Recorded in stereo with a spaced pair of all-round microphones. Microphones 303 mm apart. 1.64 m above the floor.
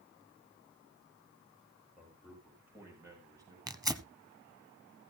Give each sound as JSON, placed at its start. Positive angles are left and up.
{"t": 2.0, "sound": "a man speaking", "side_deg": 0, "distance_m": 8.5}
{"t": 3.7, "sound": "tearing paper", "side_deg": -10, "distance_m": 0.9}